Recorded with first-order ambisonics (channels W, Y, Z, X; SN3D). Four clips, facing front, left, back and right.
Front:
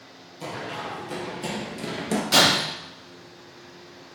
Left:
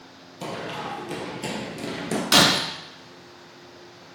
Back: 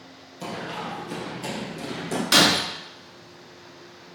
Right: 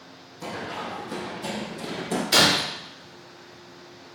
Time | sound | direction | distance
0.4 | running footsteps | 95° left | 2.5 m
2.3 | breaking glass | 115° left | 3 m